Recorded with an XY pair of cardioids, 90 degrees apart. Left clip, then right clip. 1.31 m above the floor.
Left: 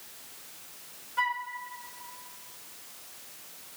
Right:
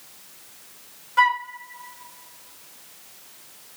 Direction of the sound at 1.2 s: 70° right.